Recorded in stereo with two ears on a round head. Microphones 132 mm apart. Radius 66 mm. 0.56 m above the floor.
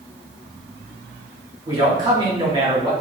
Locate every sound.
1.7 s a man speaking: 25° right (ahead or behind), 1.1 m